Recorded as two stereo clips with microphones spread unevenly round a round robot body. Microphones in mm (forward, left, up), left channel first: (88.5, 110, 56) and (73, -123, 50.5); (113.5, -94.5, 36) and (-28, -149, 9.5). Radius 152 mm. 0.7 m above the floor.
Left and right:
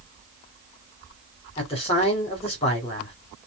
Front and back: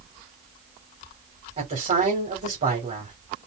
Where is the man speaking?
155° left, 2.5 m.